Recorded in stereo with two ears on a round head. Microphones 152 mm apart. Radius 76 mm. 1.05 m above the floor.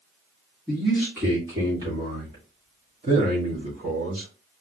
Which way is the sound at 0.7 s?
Centre (ahead or behind).